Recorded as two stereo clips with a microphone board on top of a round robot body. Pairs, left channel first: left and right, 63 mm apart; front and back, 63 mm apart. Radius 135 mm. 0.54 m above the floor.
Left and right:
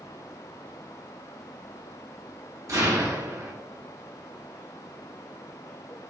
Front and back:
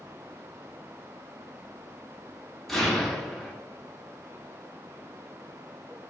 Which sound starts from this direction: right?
An explosion, at 2.7 s.